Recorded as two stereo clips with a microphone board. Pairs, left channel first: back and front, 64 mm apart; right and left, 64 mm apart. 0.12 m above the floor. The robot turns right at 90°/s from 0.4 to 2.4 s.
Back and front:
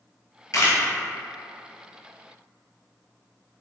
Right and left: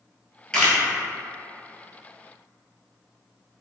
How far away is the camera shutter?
About 0.8 m.